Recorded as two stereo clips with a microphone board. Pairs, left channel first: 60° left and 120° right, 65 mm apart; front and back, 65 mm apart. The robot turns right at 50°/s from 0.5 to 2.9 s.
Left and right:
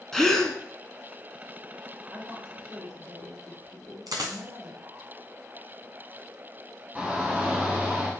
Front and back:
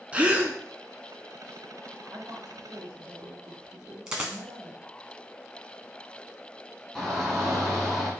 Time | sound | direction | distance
0.1 | a gasp | 140° left | 0.6 m
2.1 | a woman speaking | 175° right | 2.5 m
4.1 | a dropped coin | 105° right | 1.4 m
7.0 | a shout | 90° right | 1.7 m